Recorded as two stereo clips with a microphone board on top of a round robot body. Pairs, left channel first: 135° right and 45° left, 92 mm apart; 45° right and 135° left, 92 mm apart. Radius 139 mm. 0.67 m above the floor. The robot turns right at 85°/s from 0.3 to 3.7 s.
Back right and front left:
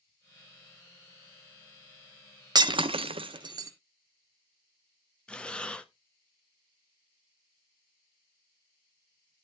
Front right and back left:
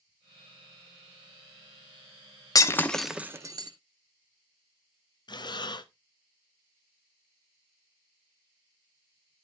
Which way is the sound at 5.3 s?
60° right.